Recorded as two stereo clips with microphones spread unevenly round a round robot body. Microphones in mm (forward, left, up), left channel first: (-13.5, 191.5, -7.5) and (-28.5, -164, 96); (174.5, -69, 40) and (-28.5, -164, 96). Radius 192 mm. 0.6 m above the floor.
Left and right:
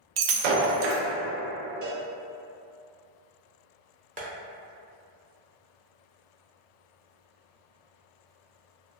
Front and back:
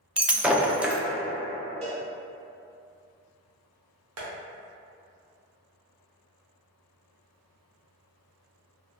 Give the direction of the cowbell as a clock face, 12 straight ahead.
3 o'clock.